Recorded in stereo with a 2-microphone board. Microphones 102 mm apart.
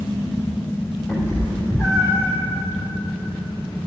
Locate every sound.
1.1 s a cat meowing: 20° left (ahead or behind), 4 m; by 2.3 s 30° left (ahead or behind), 3.5 m